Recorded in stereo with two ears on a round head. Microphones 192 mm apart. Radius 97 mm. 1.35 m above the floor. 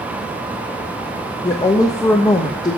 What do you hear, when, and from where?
1.4 s a woman speaking: 15° left (ahead or behind), 0.6 m